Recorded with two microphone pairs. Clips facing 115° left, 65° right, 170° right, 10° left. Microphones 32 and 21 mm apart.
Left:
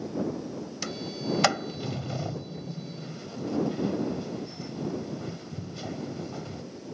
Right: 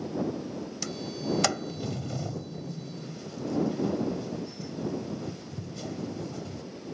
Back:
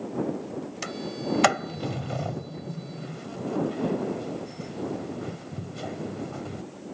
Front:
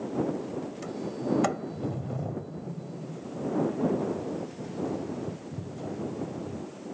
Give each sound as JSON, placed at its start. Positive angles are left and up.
{"t": 0.8, "sound": "a sliding door", "azimuth_deg": 180}